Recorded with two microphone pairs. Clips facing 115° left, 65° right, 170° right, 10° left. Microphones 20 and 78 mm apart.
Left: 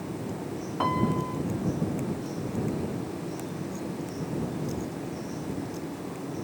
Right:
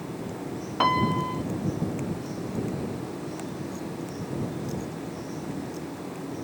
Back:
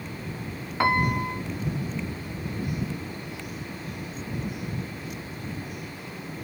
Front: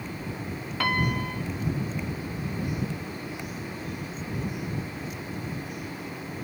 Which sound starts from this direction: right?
A piano, at 0.8 s.